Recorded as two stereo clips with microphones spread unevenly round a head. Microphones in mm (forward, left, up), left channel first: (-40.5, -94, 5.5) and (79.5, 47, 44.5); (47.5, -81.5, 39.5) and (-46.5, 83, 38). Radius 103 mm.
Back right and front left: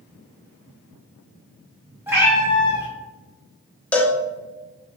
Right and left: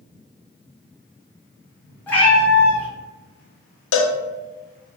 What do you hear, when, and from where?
2.1 s a cat meowing: 15° left, 0.7 m
3.9 s a cowbell: 50° right, 0.5 m